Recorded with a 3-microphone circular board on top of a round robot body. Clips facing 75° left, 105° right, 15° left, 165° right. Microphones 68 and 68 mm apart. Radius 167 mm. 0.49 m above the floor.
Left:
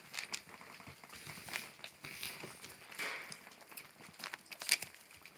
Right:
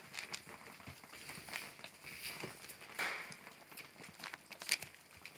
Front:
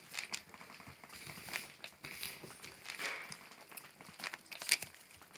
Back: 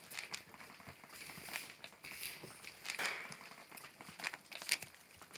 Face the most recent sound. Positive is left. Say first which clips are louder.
# right 2 dB, back 2 dB
turn(degrees=-150)